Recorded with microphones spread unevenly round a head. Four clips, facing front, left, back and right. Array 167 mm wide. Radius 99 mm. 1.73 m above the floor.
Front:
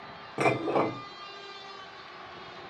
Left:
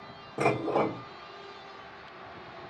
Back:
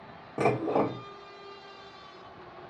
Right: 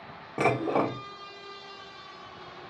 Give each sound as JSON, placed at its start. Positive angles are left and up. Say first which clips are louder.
{"t": 0.4, "sound": "dishes clattering", "louder": "right 1 dB, even", "azimuth_deg": -145, "distance_m": 0.7}